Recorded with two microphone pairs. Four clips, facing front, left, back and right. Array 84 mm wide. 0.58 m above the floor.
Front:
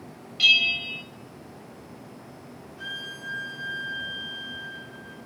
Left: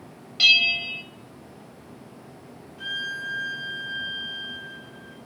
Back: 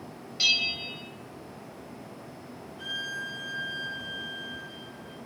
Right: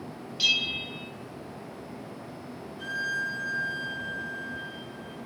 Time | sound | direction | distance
0.4 | a bell | 95° left | 1.3 m
2.8 | a violin | 50° left | 5 m